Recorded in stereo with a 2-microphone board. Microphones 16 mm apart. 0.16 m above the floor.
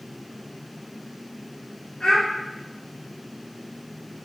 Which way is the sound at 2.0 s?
65° left (ahead or behind).